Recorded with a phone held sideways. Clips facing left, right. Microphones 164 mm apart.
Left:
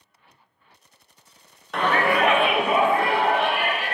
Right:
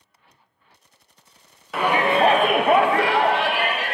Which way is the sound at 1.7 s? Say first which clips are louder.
Right 2 dB; 5° right (ahead or behind).